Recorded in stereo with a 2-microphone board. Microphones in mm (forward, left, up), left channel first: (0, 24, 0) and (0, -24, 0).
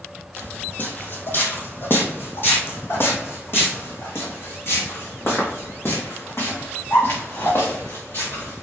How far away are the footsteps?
About 2 m.